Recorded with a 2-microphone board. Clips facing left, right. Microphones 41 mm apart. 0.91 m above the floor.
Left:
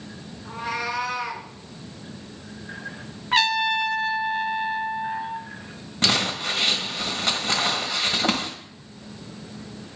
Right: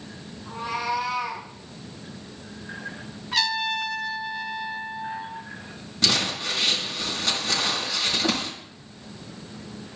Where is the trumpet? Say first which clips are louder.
Left 5 dB; 40° left (ahead or behind), 0.6 m.